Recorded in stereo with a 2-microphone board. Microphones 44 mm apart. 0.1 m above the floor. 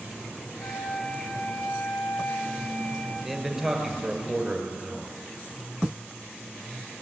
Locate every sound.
0.6 s a flute: 70° left (ahead or behind), 3.5 m
3.2 s a man speaking: 5° right (ahead or behind), 2 m